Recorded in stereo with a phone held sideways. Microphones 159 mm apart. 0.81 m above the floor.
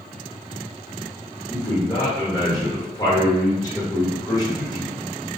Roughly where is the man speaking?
Left.